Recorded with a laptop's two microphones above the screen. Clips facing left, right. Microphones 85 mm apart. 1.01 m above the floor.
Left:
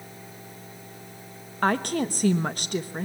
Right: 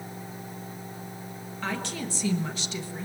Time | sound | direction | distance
0.0 | a fan | 15° right (ahead or behind) | 5.5 m
1.6 | a woman speaking | 50° left (ahead or behind) | 1.3 m